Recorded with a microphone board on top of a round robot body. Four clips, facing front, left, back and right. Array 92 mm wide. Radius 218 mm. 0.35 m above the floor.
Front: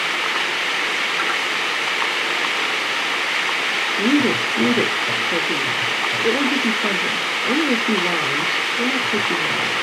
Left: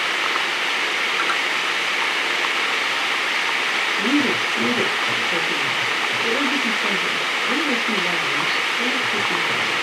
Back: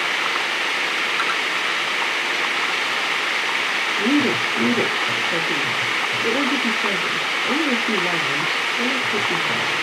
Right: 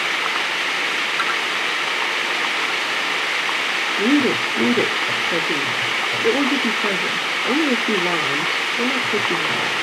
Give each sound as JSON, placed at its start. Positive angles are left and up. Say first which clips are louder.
{"t": 4.0, "sound": "a woman speaking", "louder": "right 4 dB, front 2 dB", "azimuth_deg": -75, "distance_m": 1.1}